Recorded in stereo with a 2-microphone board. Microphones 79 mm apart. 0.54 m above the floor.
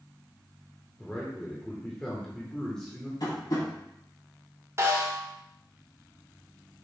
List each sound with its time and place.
1.0 s a man speaking: 5° left (ahead or behind), 1.5 m
3.2 s tapping: 60° left (ahead or behind), 3.5 m
4.8 s a snare drum: 40° right (ahead or behind), 1.9 m